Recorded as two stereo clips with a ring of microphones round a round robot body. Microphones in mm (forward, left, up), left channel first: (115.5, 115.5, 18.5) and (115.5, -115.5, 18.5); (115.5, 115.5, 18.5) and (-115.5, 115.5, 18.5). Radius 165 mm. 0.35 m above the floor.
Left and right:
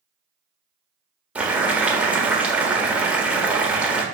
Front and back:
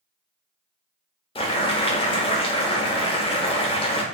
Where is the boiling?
15° right, 1.4 m.